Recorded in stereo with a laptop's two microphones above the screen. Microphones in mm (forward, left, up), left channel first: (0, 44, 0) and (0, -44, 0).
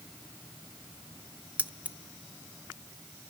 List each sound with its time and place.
1.6 s keys jangling: 15° right (ahead or behind), 0.6 m